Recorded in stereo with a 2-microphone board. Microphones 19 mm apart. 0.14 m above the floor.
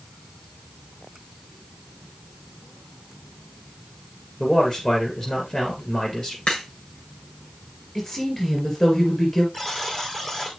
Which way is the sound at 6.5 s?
55° left (ahead or behind).